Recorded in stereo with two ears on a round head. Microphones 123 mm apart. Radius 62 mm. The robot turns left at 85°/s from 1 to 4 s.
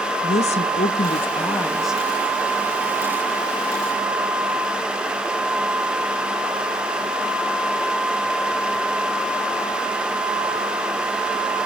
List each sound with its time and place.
0.2 s a woman speaking: 70° left, 1.2 m; by 2.0 s 15° right, 1.2 m